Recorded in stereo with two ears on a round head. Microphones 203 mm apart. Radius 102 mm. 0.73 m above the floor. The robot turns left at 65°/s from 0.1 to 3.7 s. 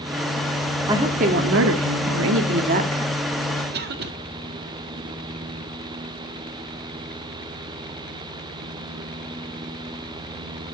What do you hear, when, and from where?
0.9 s a woman speaking: 15° right, 1.3 m; by 3.2 s 170° right, 1.3 m
3.7 s a cough: 45° right (ahead or behind), 1.6 m